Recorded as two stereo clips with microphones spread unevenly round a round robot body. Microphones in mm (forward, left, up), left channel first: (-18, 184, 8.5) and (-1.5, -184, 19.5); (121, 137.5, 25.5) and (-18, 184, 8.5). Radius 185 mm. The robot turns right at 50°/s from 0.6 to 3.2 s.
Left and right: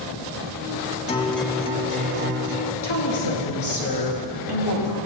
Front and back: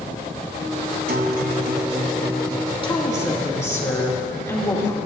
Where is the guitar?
165° left, 0.7 m; by 2.7 s 110° right, 0.7 m.